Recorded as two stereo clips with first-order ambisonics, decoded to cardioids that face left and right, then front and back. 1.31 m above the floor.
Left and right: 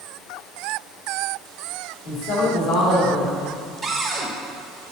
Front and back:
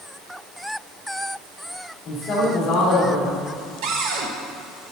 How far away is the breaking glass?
No breaking glass in this recording.